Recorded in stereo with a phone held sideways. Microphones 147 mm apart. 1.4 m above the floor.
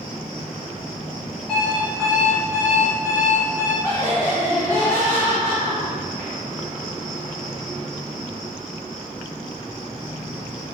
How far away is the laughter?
About 1.3 m.